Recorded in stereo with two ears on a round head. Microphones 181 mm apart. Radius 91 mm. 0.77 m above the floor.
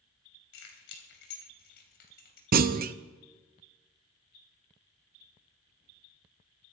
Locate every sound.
0.5 s keys jangling: 70° left (ahead or behind), 3.5 m; by 2.4 s 50° left (ahead or behind), 3.5 m
2.5 s a clunk: 45° right (ahead or behind), 0.6 m